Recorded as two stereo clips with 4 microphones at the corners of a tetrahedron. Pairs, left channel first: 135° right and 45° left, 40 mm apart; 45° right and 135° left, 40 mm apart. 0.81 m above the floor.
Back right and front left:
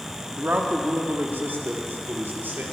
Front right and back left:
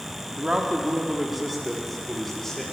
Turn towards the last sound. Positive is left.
turn(degrees=35)